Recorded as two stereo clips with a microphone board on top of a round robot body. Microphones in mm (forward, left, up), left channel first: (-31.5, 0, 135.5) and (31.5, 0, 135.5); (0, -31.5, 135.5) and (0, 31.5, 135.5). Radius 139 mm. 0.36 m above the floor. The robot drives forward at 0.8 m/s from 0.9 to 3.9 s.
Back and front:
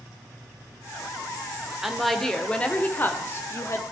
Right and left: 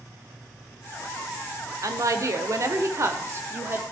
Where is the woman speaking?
85° left, 1.5 m; by 3.8 s 140° left, 2 m.